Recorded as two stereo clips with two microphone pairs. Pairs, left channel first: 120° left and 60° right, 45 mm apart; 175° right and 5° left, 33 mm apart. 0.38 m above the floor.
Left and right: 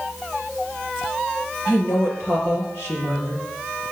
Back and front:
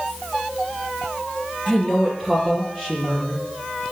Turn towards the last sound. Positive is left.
turn(degrees=95)